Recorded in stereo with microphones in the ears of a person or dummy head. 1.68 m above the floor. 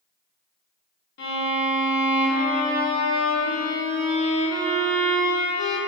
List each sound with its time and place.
1.2 s a violin: 70° left (ahead or behind), 0.7 m